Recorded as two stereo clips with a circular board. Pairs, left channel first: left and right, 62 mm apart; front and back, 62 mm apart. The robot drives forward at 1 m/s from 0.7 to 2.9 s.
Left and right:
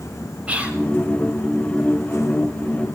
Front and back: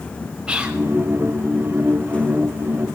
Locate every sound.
0.5 s whispering: 125° right, 1.1 m; by 0.8 s 130° right, 1.1 m